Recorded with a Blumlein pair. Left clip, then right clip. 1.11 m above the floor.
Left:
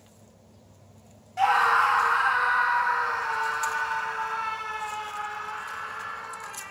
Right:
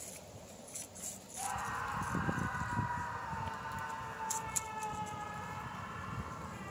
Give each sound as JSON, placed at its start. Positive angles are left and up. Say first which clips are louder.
{"t": 1.4, "sound": "a scream", "louder": "left 19 dB", "azimuth_deg": 40, "distance_m": 0.7}